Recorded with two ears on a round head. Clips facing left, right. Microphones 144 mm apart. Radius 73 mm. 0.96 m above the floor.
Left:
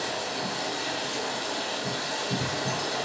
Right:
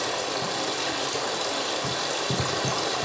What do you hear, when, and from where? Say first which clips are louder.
0.0 s running water: right 3 dB; 80° right, 1.4 m